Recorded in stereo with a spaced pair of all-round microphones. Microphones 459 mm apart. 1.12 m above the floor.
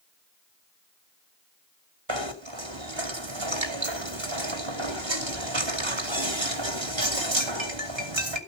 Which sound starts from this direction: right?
Knocking, at 2.1 s.